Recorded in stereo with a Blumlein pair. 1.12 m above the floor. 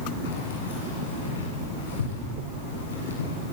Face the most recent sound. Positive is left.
turn(degrees=65)